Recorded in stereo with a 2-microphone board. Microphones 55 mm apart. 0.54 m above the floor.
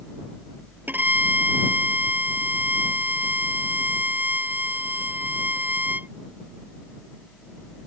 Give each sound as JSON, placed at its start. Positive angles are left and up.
{"t": 0.9, "sound": "a violin", "side_deg": -35}